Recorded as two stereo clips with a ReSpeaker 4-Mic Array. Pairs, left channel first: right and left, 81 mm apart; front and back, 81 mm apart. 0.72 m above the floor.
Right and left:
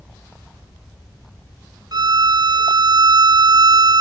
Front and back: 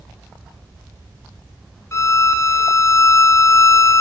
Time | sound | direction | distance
1.9 | a violin | 55° left | 0.5 m